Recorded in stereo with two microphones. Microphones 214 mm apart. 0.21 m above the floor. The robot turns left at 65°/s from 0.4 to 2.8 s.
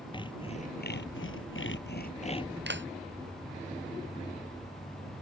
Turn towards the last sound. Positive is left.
turn(degrees=-65)  # may be behind; listen again after turning